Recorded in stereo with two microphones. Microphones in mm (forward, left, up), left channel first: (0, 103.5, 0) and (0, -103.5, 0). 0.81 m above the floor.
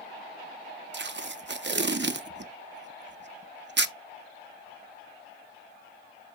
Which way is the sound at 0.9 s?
60° right (ahead or behind).